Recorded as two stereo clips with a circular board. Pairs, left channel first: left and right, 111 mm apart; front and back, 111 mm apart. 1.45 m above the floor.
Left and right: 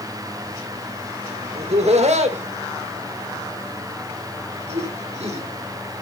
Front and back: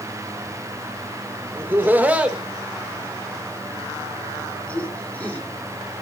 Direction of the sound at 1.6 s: 110° right.